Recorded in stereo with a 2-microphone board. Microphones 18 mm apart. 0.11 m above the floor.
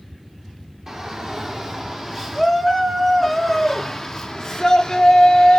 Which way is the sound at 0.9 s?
35° right (ahead or behind).